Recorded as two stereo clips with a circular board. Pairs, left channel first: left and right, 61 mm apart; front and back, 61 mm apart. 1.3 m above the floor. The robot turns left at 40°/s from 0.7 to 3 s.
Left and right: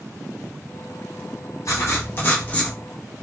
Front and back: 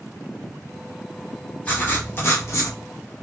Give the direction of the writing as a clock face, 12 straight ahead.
10 o'clock.